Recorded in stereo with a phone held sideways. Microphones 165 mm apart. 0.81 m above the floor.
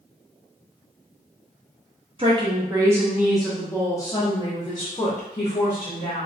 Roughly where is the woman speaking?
Right.